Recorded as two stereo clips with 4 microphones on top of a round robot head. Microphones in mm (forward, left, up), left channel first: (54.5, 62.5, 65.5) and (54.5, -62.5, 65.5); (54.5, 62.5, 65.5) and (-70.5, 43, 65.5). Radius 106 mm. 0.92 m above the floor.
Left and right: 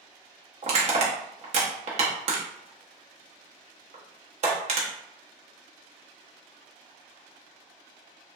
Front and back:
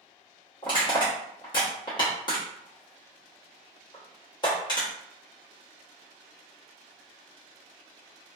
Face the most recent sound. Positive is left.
turn(degrees=-55)